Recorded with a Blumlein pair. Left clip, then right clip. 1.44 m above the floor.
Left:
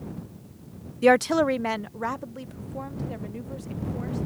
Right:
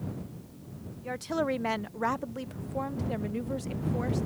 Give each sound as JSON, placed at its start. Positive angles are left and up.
{"t": 1.0, "sound": "a woman speaking", "azimuth_deg": 45}